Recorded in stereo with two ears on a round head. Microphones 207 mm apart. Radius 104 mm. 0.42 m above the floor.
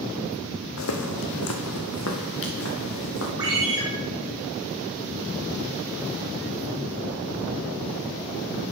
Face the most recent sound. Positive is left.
turn(degrees=-15)  # may be behind; listen again after turning